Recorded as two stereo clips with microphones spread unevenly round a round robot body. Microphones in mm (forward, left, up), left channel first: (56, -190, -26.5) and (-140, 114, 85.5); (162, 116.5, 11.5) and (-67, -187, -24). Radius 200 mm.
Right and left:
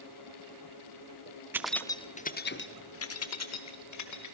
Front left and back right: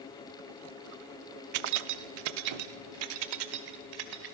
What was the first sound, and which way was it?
Keys jangling, 150° right.